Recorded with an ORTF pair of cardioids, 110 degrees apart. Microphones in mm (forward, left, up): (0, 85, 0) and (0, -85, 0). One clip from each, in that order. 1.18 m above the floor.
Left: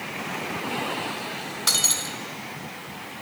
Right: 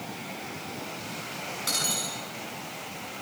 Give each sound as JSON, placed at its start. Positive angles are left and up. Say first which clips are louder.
{"t": 1.7, "sound": "breaking glass", "louder": "left 6 dB", "azimuth_deg": 50, "distance_m": 5.0}